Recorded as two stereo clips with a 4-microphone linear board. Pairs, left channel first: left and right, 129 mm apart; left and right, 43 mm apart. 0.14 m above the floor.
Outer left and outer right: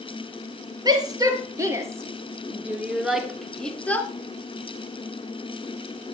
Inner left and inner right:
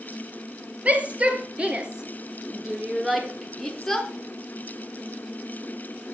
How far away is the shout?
About 3 m.